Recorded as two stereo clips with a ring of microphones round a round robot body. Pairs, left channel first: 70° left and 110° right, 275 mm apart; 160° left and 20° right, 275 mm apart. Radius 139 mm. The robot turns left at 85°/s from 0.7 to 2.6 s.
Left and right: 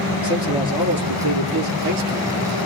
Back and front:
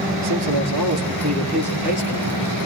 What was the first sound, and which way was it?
A man speaking, 40° right.